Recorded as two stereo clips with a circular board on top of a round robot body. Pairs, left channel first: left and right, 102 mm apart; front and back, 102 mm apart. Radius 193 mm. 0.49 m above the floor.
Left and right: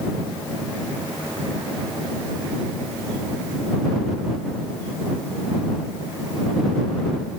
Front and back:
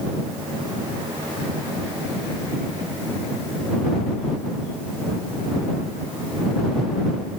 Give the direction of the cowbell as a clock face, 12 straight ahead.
No cowbell in this recording.